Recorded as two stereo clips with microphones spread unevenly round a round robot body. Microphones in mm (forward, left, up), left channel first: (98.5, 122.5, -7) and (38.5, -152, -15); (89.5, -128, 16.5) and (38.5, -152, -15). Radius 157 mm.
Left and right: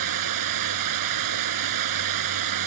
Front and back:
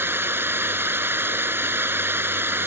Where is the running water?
100° right.